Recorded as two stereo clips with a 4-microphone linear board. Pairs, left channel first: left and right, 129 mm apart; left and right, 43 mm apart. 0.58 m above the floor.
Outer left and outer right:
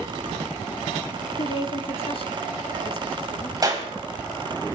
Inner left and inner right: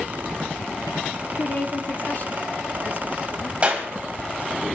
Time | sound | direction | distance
1.4 | a woman speaking | 45° left (ahead or behind) | 1.4 m
3.6 | a clap | 30° right (ahead or behind) | 3.5 m